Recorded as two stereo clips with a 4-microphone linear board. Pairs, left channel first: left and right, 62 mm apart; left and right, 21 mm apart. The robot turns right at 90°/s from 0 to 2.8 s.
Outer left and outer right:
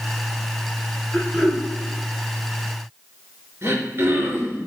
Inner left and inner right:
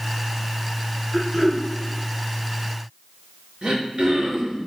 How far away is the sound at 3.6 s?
About 3 m.